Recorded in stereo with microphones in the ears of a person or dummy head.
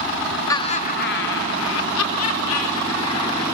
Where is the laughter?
25° left (ahead or behind), 0.9 m; by 3.4 s 75° left (ahead or behind), 4.5 m.